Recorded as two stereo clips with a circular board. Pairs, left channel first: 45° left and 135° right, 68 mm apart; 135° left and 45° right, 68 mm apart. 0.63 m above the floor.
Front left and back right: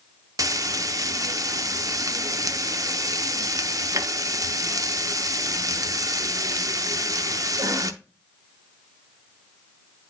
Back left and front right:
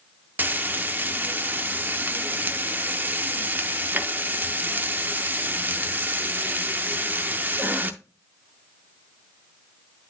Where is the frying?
105° right, 0.7 m.